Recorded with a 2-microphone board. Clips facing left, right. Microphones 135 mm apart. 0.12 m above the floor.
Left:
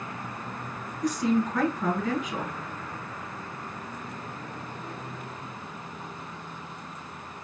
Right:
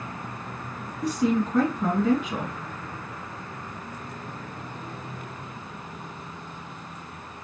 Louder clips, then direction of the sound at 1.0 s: Right 1 dB; 30° right (ahead or behind).